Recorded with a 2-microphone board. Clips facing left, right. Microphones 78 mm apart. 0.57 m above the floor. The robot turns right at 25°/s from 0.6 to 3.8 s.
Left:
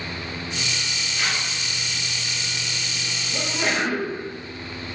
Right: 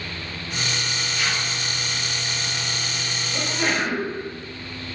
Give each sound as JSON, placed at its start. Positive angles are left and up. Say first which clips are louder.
{"t": 1.1, "sound": "tearing paper", "louder": "even", "side_deg": 40, "distance_m": 1.9}
{"t": 3.3, "sound": "a sneeze", "louder": "even", "side_deg": 5, "distance_m": 1.4}